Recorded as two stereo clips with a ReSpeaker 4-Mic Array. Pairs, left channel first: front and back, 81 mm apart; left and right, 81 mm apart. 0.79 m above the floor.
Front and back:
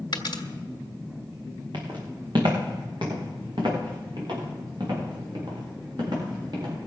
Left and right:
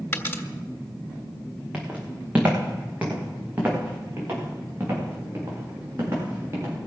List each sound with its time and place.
0.1 s a dropped coin: 30° left, 1.6 m
1.7 s footsteps: 165° right, 4 m; by 6.8 s 150° right, 8.5 m